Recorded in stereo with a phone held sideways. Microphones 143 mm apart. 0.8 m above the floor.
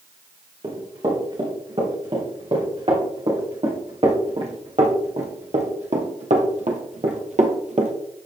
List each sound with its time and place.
0.6 s running footsteps: 40° right (ahead or behind), 4.5 m; by 7.9 s 55° right (ahead or behind), 1.2 m